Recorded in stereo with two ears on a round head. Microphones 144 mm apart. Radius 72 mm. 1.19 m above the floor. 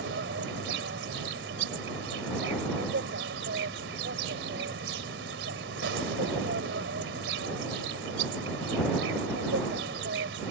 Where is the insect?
85° right.